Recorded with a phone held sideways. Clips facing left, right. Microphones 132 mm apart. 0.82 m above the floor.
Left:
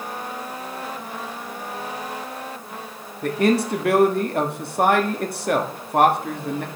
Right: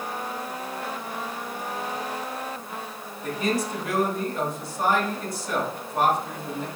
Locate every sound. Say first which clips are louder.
3.2 s a man speaking: left 7 dB; 65° left (ahead or behind), 1.3 m